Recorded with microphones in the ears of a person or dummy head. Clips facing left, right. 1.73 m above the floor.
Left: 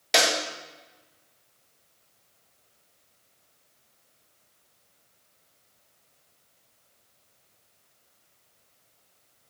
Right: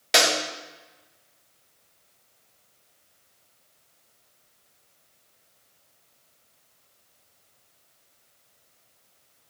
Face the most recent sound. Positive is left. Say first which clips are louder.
# right 1 dB
turn(degrees=-5)  # may be behind; listen again after turning